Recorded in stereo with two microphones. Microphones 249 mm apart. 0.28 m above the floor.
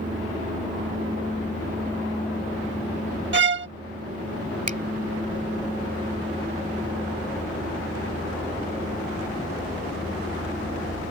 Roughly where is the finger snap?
Right.